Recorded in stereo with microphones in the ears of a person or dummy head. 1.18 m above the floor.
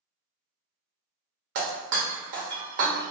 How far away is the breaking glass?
About 0.8 m.